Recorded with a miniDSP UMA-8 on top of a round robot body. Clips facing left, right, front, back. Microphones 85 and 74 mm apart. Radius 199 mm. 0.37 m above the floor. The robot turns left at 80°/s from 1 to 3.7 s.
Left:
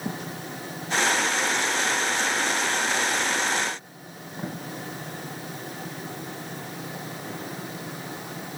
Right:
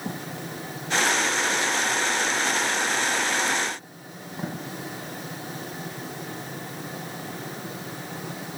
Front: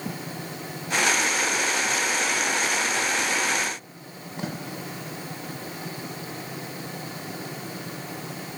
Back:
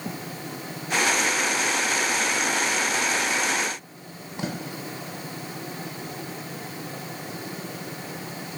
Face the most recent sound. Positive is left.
No sound to turn to.